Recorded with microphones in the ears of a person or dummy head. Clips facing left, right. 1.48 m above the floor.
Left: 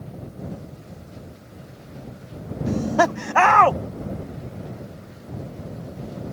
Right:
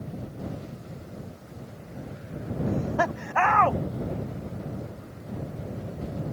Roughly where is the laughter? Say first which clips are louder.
Left 7 dB; left.